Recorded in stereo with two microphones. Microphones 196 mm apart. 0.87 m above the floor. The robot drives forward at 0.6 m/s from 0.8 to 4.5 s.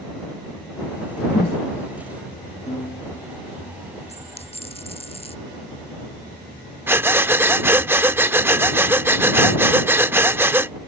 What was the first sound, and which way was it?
A whoosh, 55° left (ahead or behind).